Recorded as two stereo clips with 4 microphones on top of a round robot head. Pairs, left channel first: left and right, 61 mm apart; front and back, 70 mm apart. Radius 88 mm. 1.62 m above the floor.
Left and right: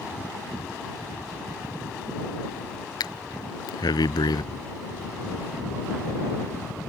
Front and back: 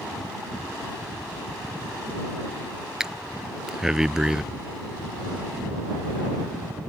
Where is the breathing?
95° left.